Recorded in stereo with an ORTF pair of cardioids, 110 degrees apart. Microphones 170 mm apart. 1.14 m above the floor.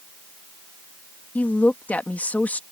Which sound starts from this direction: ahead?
A woman speaking, at 1.4 s.